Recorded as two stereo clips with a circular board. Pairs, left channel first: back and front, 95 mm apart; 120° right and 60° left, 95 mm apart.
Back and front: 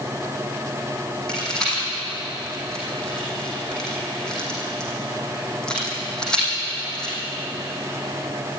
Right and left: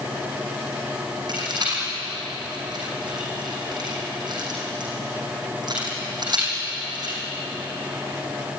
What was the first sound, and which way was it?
A rattle, 100° left.